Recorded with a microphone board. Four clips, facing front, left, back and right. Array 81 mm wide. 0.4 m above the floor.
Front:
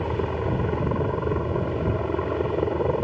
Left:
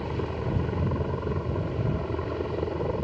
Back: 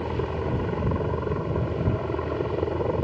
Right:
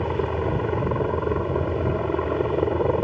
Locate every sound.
0.0 s a helicopter: 75° right